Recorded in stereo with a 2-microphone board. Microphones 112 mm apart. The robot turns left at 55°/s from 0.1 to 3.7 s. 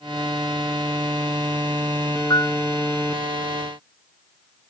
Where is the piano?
40° left (ahead or behind); by 2.6 s 30° left (ahead or behind).